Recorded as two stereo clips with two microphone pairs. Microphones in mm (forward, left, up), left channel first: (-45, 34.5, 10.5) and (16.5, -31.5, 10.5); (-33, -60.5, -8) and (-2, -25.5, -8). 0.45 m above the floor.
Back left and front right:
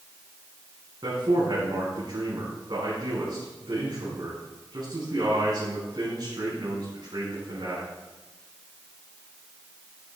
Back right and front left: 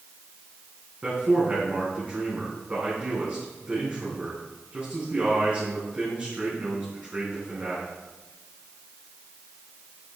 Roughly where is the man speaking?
Ahead.